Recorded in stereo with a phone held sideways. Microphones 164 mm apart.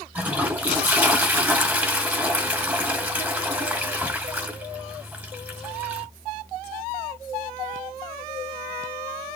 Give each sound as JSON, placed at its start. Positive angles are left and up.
{"t": 0.1, "sound": "a toilet flushing", "side_deg": -10, "distance_m": 1.3}